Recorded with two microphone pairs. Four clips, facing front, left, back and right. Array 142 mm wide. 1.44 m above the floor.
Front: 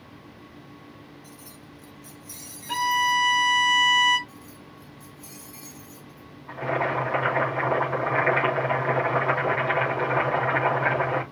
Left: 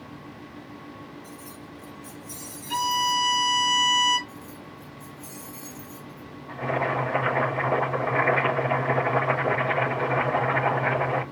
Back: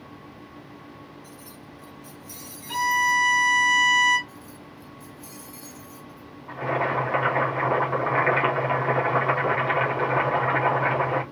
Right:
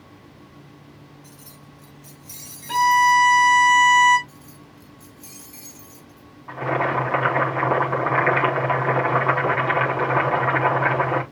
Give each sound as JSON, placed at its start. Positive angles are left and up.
{"t": 1.2, "sound": "keys jangling", "azimuth_deg": -95, "distance_m": 4.5}
{"t": 2.7, "sound": "a violin", "azimuth_deg": -55, "distance_m": 4.0}
{"t": 4.3, "sound": "keys jangling", "azimuth_deg": -100, "distance_m": 3.5}
{"t": 6.5, "sound": "boiling", "azimuth_deg": -95, "distance_m": 5.0}